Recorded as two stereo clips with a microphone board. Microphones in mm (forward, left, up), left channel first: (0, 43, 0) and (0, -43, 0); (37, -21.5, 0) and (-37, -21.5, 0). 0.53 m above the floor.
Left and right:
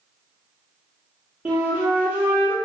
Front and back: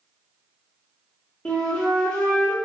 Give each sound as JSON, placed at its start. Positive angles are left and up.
{"t": 1.4, "sound": "a flute", "azimuth_deg": -55, "distance_m": 0.7}